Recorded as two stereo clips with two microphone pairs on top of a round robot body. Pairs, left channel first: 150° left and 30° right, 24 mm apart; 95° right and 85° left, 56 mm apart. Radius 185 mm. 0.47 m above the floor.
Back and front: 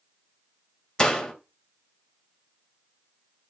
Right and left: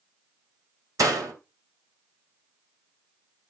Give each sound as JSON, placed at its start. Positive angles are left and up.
{"t": 1.0, "sound": "a door slam", "azimuth_deg": 90, "distance_m": 3.0}